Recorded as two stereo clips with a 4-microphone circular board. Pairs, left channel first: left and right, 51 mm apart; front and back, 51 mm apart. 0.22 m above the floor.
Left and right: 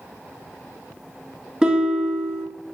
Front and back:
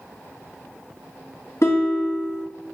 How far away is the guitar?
About 1.0 m.